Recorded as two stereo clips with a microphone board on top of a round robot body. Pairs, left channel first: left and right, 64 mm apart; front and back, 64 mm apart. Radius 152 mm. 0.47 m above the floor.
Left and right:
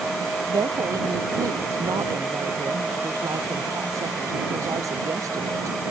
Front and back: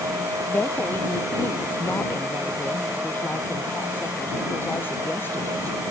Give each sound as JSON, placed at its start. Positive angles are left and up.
{"t": 0.5, "sound": "a woman speaking", "azimuth_deg": -60}